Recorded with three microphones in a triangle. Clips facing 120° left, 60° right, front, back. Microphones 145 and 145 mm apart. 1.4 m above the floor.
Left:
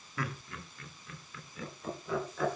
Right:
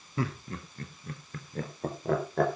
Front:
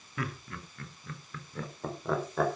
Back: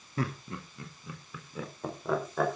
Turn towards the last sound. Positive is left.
turn(degrees=-90)